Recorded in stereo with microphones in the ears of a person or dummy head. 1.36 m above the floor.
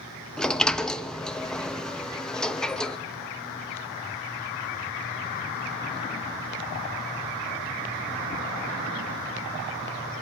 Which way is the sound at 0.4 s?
5° left (ahead or behind).